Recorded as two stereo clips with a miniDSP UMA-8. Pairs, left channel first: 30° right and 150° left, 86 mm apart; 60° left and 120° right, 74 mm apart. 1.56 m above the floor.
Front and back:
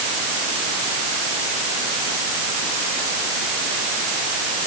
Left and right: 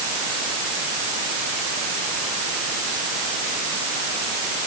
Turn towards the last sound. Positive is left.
No sound to turn to.